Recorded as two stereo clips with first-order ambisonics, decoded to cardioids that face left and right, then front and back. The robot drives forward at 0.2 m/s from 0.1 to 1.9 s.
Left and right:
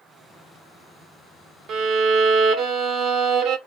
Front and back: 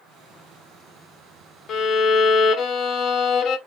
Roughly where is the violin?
Ahead right.